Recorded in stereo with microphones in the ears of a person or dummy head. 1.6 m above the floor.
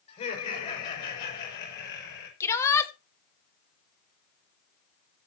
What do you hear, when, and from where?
0.1 s laughter: 40° left (ahead or behind), 6 m; by 2.3 s 65° left (ahead or behind), 6.5 m
2.4 s a shout: 15° left (ahead or behind), 2 m